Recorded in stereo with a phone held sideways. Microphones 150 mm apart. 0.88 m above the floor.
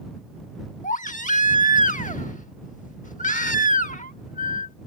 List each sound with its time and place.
0.8 s a baby crying: 65° left (ahead or behind)